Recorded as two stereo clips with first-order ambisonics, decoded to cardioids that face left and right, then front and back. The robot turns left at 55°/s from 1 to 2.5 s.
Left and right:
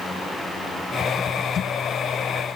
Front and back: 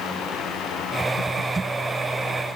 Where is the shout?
I don't hear a shout.